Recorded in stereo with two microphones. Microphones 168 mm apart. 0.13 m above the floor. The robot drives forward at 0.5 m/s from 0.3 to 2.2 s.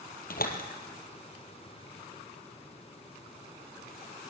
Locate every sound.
0.3 s a door slam: 60° left (ahead or behind), 2.5 m